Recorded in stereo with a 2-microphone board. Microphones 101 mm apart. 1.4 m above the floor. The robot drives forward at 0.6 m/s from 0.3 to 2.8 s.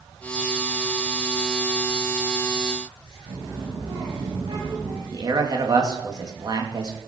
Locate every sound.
3.3 s a child speaking: 50° right (ahead or behind), 5.5 m
5.1 s a man speaking: 40° right (ahead or behind), 2 m